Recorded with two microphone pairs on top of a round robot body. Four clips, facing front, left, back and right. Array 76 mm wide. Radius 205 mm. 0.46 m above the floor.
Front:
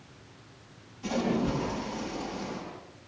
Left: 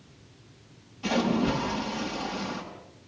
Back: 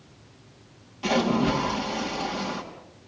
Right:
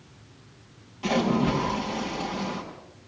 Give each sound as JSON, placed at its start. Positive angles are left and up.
{"t": 1.0, "sound": "a splash", "azimuth_deg": -145, "distance_m": 6.0}